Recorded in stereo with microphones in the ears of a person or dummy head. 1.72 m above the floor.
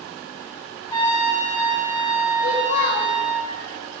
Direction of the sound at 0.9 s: 30° left (ahead or behind).